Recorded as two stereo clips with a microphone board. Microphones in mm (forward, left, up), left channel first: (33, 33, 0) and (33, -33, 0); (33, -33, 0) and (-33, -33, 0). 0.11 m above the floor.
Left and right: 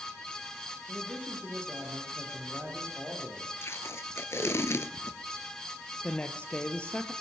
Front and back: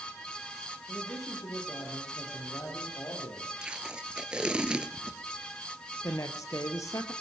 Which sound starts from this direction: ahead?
A woman speaking, at 6.0 s.